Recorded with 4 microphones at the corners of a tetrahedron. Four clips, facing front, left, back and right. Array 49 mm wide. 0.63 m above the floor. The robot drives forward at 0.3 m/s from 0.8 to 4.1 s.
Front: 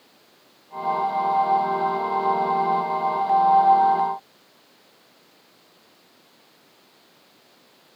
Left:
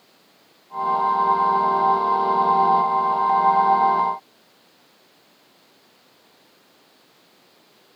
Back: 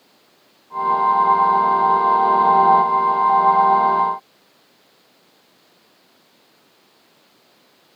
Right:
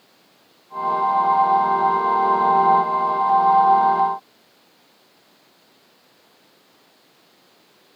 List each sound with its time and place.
Only background noise.